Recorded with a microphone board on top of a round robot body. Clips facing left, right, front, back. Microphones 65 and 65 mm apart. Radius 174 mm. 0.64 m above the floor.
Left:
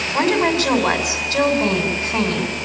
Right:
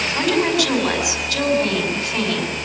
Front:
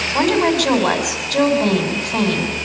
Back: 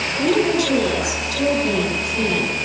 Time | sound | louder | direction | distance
0.1 | a woman speaking | left 2 dB, front 2 dB | 30° left | 6 m